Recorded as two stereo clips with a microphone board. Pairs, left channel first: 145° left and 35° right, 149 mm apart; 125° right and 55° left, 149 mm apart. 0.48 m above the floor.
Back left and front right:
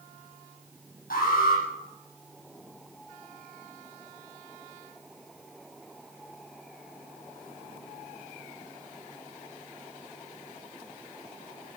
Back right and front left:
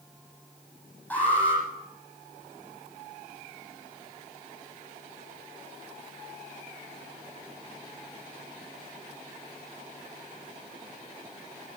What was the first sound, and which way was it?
An alarm, 160° left.